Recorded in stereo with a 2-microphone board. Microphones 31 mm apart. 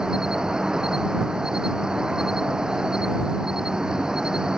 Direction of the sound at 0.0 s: 25° right (ahead or behind).